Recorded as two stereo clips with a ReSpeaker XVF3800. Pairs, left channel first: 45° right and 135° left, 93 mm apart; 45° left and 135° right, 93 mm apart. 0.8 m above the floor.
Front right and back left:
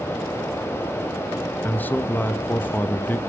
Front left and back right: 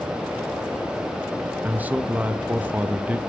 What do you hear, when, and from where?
1.6 s a man speaking: 85° right, 0.6 m